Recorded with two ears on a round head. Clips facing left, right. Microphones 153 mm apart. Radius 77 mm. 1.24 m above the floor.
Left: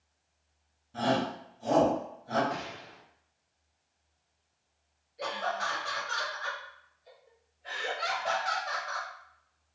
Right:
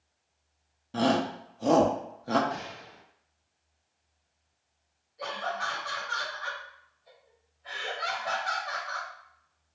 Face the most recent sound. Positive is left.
turn(degrees=30)  # may be behind; listen again after turning